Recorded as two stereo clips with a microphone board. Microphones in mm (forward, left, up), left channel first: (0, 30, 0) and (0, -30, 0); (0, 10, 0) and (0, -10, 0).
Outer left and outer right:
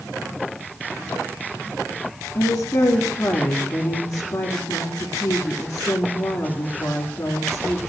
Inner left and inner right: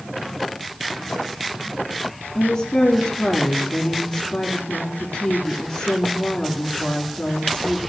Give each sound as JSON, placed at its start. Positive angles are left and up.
{"t": 2.3, "sound": "a woman speaking", "side_deg": 55, "distance_m": 2.5}